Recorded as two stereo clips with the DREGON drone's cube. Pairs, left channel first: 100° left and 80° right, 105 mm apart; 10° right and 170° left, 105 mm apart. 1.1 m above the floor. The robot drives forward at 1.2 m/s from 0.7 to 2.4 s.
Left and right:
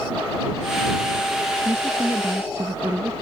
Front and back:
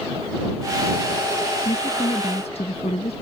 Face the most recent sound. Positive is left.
turn(degrees=-15)